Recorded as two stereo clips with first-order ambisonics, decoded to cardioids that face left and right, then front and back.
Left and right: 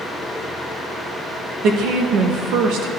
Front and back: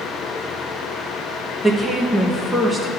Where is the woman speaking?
100° right, 1.0 m.